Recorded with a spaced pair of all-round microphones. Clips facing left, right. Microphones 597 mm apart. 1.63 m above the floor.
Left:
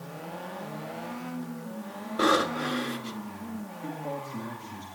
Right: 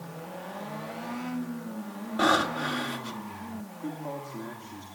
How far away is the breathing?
About 1.6 m.